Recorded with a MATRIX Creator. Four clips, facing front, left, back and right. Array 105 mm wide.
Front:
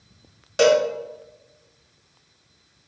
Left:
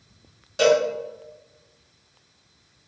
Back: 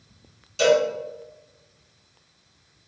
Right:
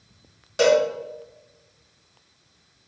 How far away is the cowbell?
About 1.4 m.